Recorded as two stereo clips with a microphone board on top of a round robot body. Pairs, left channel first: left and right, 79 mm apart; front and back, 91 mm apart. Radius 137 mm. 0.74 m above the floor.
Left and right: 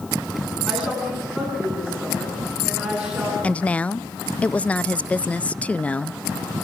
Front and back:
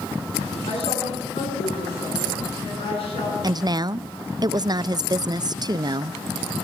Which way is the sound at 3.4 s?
155° left.